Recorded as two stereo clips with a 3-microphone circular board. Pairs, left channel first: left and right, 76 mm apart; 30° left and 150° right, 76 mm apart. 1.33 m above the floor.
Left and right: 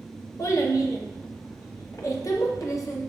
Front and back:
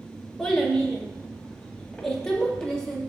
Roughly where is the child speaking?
Left.